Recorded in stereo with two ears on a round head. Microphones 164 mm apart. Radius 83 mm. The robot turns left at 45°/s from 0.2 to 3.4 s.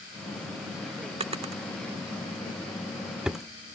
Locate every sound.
1.2 s a drawer: 35° right (ahead or behind); by 3.5 s centre (ahead or behind)